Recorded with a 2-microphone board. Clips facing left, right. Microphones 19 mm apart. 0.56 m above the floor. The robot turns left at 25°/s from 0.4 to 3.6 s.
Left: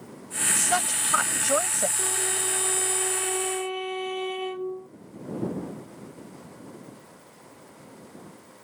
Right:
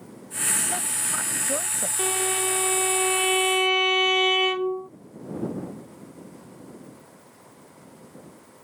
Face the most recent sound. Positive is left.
turn(degrees=-110)